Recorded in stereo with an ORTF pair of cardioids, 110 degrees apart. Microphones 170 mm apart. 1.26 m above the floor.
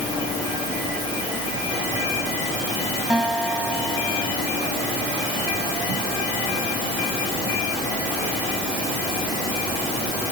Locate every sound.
3.1 s a guitar: 5° right